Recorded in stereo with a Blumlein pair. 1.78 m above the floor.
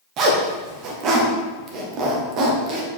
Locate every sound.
0.2 s a zipper: 35° right, 1.4 m